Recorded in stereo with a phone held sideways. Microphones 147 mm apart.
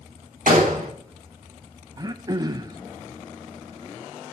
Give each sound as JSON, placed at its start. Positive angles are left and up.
{"t": 0.5, "sound": "a gunshot", "side_deg": -75, "distance_m": 2.0}
{"t": 2.0, "sound": "throat clearing", "side_deg": -30, "distance_m": 0.5}